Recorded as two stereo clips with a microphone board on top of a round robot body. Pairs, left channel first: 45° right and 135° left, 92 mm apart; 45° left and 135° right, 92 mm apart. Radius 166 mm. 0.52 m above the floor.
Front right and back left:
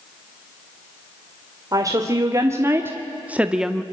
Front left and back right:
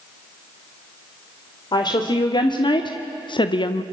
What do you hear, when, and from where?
1.7 s a woman speaking: 85° left, 2 m; by 3.8 s 40° left, 1.0 m